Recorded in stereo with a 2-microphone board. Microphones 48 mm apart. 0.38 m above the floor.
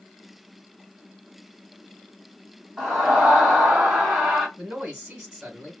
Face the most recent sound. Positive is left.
turn(degrees=-15)  # may be behind; listen again after turning